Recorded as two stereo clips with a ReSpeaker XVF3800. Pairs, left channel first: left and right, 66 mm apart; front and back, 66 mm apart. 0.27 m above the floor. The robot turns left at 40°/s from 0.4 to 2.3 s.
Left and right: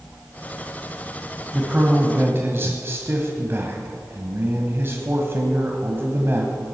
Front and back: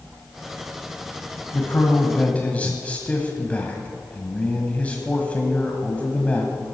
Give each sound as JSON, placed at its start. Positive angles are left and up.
{"t": 1.5, "sound": "a man speaking", "azimuth_deg": -30, "distance_m": 1.6}